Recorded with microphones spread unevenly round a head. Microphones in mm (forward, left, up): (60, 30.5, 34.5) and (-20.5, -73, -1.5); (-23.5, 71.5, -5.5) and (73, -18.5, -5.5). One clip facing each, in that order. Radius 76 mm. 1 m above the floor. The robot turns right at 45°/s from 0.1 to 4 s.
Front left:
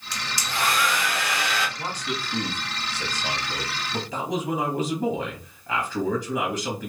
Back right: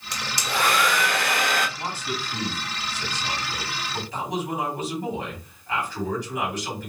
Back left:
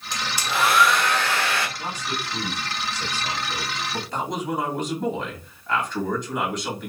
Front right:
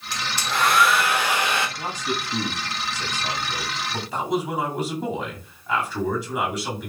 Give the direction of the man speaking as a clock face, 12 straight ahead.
2 o'clock.